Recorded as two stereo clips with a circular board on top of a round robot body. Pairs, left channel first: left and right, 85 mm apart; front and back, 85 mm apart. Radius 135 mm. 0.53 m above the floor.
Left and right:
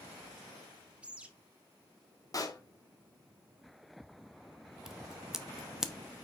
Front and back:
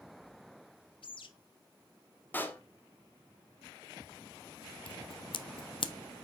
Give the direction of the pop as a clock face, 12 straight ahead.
10 o'clock.